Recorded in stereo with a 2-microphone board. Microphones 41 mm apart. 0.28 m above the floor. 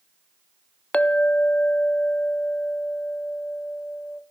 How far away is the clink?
About 0.9 m.